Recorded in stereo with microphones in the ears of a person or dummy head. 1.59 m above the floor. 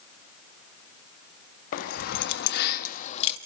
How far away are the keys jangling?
About 2.0 m.